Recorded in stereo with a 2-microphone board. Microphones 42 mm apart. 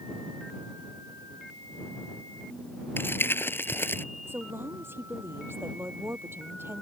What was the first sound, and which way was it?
Crumpling, 60° left (ahead or behind).